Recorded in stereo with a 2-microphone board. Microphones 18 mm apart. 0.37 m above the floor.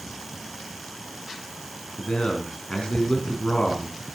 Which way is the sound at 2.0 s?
50° left (ahead or behind).